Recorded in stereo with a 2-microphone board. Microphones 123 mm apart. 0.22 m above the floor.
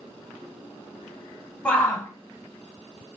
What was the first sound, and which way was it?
A shout, 10° left (ahead or behind).